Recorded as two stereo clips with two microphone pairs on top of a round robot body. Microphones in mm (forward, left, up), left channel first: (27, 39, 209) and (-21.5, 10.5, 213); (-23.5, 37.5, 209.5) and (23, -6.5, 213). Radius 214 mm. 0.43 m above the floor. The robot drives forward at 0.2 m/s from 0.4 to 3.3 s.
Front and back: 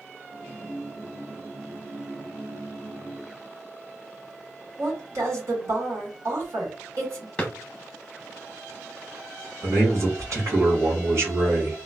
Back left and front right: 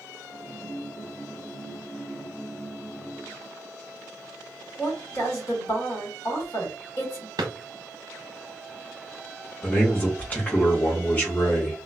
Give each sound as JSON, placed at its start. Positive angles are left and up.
{"t": 4.8, "sound": "a woman speaking", "azimuth_deg": 180, "distance_m": 2.0}
{"t": 7.4, "sound": "a drawer", "azimuth_deg": -45, "distance_m": 0.6}
{"t": 9.6, "sound": "a man speaking", "azimuth_deg": -165, "distance_m": 1.7}